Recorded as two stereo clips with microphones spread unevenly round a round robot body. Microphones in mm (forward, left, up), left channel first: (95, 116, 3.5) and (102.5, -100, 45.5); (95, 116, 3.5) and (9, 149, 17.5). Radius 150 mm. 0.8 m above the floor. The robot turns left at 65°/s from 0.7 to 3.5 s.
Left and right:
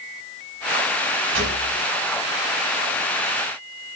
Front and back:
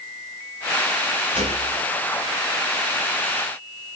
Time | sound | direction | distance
1.3 | a gunshot | 140° right | 2 m